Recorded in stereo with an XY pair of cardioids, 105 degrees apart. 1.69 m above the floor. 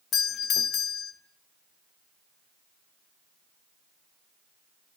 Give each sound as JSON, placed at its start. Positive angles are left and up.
{"t": 0.1, "sound": "a doorbell", "azimuth_deg": 65, "distance_m": 0.9}